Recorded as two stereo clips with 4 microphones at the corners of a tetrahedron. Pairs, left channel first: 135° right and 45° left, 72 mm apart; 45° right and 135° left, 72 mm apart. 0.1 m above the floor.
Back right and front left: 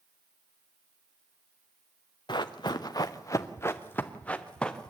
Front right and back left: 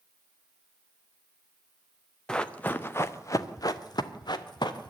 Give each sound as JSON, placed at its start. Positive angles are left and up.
{"t": 2.3, "sound": "running footsteps", "azimuth_deg": -125, "distance_m": 1.3}